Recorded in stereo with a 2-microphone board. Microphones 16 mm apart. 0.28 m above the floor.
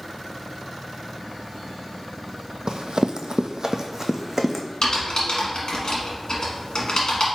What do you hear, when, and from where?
2.7 s running footsteps: 60° right (ahead or behind), 0.5 m; by 4.7 s 20° right (ahead or behind), 0.9 m
4.8 s typing on a keyboard: 55° left (ahead or behind), 1.4 m